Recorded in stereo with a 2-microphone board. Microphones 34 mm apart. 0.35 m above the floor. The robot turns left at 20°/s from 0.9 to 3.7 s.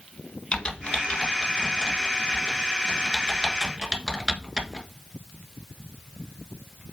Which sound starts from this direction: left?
Typing on a keyboard, at 0.5 s.